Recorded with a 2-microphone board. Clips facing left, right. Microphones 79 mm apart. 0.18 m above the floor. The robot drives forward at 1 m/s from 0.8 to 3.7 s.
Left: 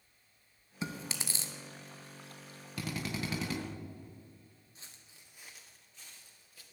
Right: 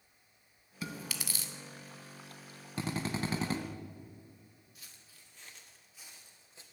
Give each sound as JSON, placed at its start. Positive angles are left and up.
{"t": 0.8, "sound": "chewing", "side_deg": 25, "distance_m": 1.5}
{"t": 2.8, "sound": "a drill", "side_deg": -30, "distance_m": 1.3}
{"t": 4.8, "sound": "footsteps", "side_deg": 30, "distance_m": 1.9}